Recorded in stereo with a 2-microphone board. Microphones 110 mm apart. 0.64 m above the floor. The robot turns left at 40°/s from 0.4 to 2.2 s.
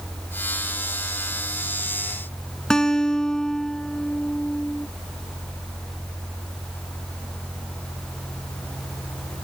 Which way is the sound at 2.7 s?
5° left (ahead or behind).